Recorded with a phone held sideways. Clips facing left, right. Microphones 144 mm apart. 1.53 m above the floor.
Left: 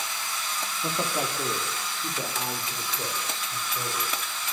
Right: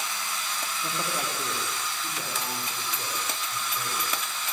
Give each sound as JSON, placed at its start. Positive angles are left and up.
{"t": 0.8, "sound": "a man speaking", "side_deg": 25, "distance_m": 4.5}